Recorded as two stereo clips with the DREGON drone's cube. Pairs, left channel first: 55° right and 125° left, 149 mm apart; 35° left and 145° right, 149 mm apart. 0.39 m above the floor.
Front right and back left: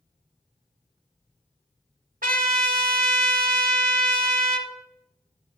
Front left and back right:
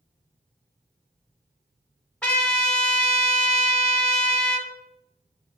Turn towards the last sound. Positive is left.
turn(degrees=115)